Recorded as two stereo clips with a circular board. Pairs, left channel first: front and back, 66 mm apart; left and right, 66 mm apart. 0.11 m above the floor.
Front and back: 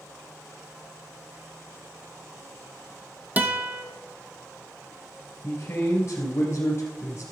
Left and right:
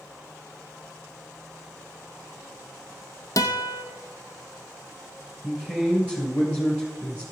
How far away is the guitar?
About 1.0 m.